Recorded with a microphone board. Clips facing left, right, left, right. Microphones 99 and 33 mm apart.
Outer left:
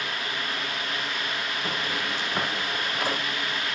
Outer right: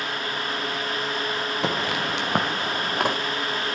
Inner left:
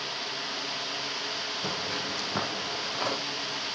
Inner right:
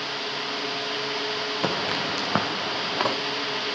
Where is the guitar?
I don't hear a guitar.